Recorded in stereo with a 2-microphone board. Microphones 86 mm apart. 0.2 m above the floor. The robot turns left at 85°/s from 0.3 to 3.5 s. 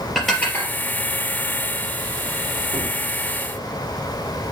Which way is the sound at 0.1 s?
5° left (ahead or behind).